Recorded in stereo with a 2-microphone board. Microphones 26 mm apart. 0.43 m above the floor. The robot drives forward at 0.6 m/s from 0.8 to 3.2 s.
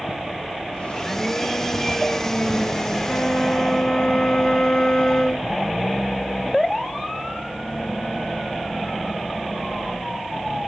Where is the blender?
10° left (ahead or behind), 1.3 m.